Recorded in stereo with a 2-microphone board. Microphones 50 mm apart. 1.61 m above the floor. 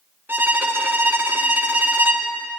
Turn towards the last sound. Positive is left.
turn(degrees=-45)  # may be behind; listen again after turning